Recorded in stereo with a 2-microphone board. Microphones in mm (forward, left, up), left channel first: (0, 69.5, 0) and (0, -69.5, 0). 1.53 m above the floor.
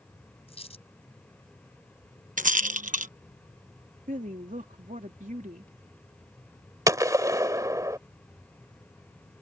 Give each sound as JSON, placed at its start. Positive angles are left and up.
{"t": 0.5, "sound": "a dropped coin", "side_deg": 45}
{"t": 2.4, "sound": "a rattle", "side_deg": -70}
{"t": 4.1, "sound": "a woman speaking", "side_deg": -70}
{"t": 6.9, "sound": "a gunshot", "side_deg": -25}